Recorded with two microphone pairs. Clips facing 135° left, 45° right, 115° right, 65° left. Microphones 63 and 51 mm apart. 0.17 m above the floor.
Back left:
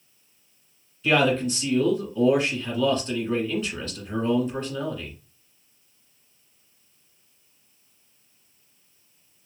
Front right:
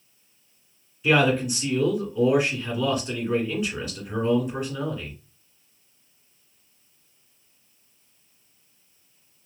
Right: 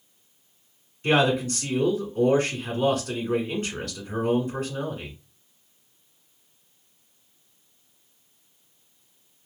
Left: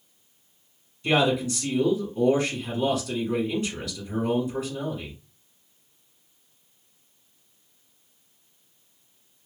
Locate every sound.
1.0 s a man speaking: 120° right, 1.6 m